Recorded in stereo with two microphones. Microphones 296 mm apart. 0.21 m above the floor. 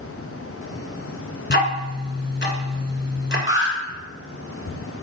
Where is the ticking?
35° left (ahead or behind), 1.2 m.